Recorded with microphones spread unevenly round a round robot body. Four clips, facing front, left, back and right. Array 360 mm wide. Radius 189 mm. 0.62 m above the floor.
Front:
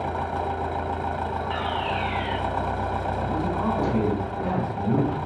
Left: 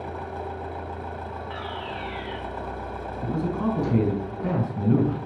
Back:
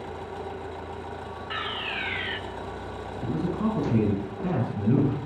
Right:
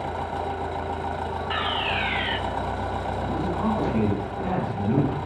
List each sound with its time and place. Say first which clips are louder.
0.0 s an engine running: right 4 dB, front 8 dB; 35° right, 1.8 m
1.5 s a fire alarm: right 8 dB, front 4 dB; 150° right, 2 m
3.2 s a man speaking: left 2 dB, back 2 dB; 125° left, 5 m